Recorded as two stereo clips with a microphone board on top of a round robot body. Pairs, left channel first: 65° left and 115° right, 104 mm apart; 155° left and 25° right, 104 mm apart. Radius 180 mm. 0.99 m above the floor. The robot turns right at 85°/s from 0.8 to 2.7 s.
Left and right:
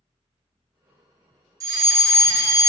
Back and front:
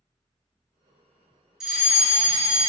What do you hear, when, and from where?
1.6 s a fire alarm: 105° right, 1.7 m; by 2.7 s 10° right, 1.7 m